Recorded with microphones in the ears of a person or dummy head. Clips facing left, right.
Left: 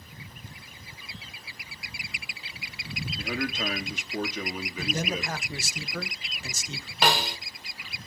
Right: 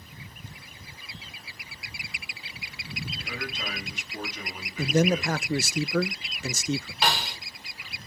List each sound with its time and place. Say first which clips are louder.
3.2 s a man speaking: left 10 dB; 50° left (ahead or behind), 3 m; by 5.8 s 75° left (ahead or behind), 3 m
4.8 s a man speaking: right 9 dB; 55° right (ahead or behind), 0.6 m
7.0 s a snare drum: left 6 dB; 45° left (ahead or behind), 2 m